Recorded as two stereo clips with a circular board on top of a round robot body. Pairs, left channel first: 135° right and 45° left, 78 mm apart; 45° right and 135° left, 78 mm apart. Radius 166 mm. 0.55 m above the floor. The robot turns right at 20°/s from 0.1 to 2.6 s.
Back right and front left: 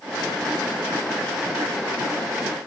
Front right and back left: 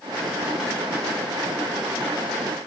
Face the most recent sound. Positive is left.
No sound to turn to.